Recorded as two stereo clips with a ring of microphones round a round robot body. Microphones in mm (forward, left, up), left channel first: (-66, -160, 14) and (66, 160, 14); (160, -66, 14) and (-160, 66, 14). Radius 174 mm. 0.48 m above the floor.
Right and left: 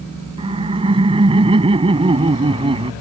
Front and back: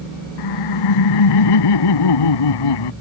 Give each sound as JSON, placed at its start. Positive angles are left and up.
{"t": 0.4, "sound": "laughter", "azimuth_deg": -10}